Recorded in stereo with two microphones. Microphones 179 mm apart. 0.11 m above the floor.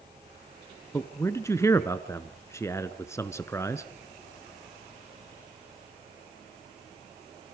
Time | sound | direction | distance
0.9 | a man speaking | 15° left (ahead or behind) | 1.1 m